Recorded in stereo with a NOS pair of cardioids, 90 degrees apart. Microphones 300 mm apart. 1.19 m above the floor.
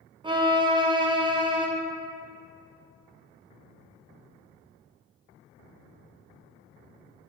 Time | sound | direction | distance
0.2 | a violin | 15° right | 1.0 m